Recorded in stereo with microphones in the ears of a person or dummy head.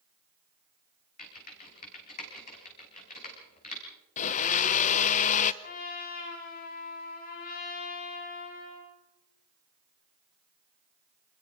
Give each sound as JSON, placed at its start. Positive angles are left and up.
{"t": 1.2, "sound": "typing on a keyboard", "side_deg": 50, "distance_m": 5.0}
{"t": 4.2, "sound": "a blender", "side_deg": 45, "distance_m": 0.9}
{"t": 5.6, "sound": "a trumpet", "side_deg": 50, "distance_m": 6.0}